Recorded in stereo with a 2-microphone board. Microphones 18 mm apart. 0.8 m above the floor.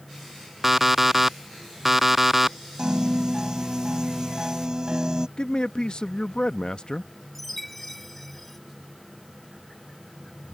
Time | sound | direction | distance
0.6 | an alarm clock | 10° right (ahead or behind) | ?
2.8 | a piano | 40° right (ahead or behind) | ?
5.4 | a man speaking | 50° left (ahead or behind) | ?
7.3 | a chime | 10° left (ahead or behind) | ?